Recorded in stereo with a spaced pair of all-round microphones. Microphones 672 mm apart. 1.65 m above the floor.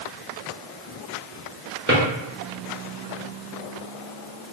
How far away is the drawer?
About 1.4 m.